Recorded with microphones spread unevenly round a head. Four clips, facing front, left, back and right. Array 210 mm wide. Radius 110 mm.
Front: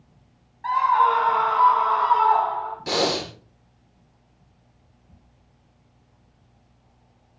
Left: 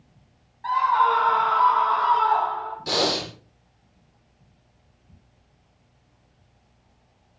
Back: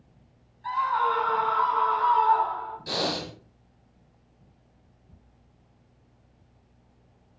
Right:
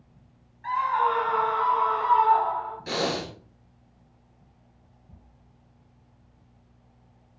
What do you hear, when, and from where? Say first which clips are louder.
0.6 s a scream: left 4 dB, front 7 dB; 15° left, 8.5 m
2.9 s breathing: left 4 dB, front 6 dB; 15° left, 4 m